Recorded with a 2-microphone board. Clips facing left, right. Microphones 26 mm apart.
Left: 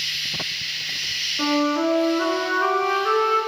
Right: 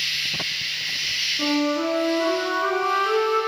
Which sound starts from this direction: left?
A flute, at 1.4 s.